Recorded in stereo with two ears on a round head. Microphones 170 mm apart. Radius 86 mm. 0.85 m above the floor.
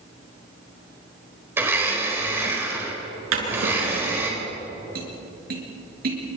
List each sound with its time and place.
1.6 s a blender: 10° right (ahead or behind), 4 m
3.3 s a drawer: 80° right, 6 m
5.0 s tapping: 55° right (ahead or behind), 5.5 m